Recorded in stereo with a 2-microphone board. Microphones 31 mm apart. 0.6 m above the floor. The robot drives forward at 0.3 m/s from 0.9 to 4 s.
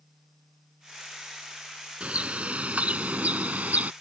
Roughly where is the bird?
Right.